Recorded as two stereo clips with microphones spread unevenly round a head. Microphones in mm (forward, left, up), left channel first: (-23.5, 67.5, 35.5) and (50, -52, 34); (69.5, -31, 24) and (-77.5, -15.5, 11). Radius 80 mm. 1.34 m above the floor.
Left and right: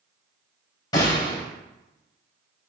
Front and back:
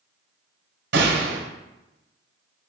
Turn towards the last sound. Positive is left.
turn(degrees=-175)